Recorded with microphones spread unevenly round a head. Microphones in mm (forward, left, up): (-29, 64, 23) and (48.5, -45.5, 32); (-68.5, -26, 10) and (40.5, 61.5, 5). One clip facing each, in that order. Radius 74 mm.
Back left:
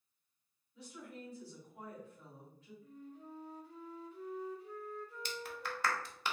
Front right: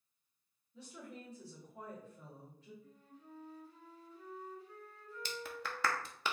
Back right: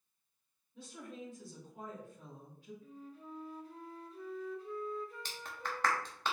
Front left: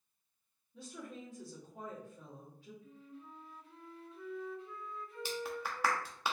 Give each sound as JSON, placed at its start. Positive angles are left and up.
{"t": 0.7, "sound": "a woman speaking", "azimuth_deg": 5, "distance_m": 2.0}
{"t": 2.8, "sound": "a flute", "azimuth_deg": 165, "distance_m": 1.0}
{"t": 5.2, "sound": "a clap", "azimuth_deg": -45, "distance_m": 0.7}